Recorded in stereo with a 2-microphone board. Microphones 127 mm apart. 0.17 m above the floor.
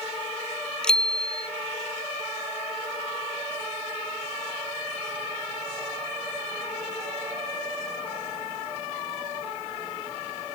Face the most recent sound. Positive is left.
turn(degrees=5)  # may be behind; listen again after turning